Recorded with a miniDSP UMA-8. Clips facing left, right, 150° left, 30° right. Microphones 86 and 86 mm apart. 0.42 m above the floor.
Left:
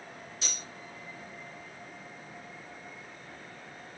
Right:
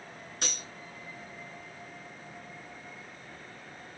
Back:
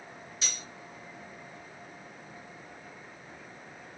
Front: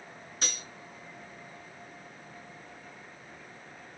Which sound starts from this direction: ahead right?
Cutlery clinking, at 0.4 s.